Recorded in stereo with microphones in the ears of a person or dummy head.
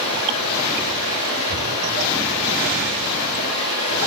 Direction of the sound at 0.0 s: 85° left.